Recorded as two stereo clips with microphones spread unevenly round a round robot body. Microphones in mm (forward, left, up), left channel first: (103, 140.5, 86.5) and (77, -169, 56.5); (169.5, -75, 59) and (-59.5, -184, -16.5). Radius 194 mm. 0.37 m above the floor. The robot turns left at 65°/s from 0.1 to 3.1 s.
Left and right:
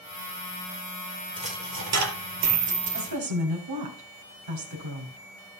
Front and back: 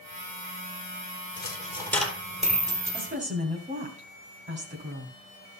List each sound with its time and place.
1.4 s a dropped coin: 20° right, 3.5 m; by 3.1 s 135° right, 3.5 m
2.9 s a woman speaking: 95° right, 3.5 m; by 5.2 s 105° right, 3.5 m